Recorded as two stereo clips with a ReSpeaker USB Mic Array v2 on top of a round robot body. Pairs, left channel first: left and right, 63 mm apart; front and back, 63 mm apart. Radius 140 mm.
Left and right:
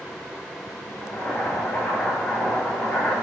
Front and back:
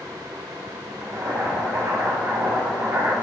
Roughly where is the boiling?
Behind.